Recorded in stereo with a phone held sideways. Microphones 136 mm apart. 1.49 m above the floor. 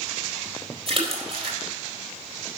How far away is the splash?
About 4 m.